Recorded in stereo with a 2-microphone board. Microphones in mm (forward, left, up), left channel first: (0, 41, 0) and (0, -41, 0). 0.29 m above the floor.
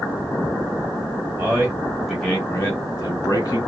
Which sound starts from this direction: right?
A man speaking, at 1.4 s.